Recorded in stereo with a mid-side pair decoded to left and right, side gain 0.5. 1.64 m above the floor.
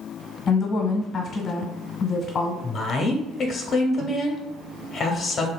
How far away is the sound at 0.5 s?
About 1.1 m.